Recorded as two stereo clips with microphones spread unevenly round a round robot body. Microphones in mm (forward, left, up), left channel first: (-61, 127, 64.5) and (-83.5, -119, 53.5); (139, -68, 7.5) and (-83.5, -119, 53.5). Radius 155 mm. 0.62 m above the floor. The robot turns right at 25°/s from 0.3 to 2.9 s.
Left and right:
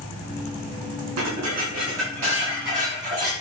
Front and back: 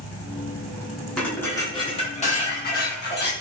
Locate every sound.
1.2 s dishes clattering: 75° right, 4.5 m; by 3.3 s 30° right, 4.5 m